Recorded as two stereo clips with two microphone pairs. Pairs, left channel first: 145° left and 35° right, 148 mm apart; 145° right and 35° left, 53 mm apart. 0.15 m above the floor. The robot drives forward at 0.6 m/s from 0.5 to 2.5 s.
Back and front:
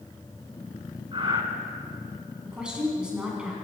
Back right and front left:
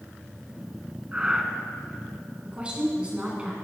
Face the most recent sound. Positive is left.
turn(degrees=45)